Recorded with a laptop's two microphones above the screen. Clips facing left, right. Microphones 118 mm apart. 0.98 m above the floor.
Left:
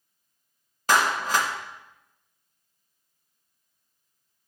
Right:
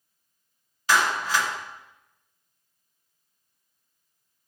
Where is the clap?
45° left (ahead or behind), 1.1 m.